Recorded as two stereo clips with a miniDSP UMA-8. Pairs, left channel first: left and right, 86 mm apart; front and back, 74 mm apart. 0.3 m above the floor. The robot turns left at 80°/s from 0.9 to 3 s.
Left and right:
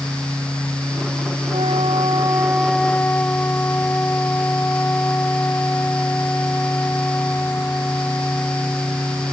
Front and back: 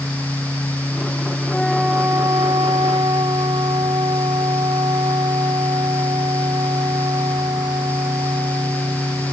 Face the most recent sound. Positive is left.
turn(degrees=160)